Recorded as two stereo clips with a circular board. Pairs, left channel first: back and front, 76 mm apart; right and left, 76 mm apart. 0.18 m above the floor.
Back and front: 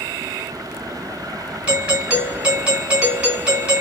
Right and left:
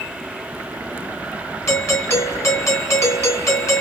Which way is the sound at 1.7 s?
65° right.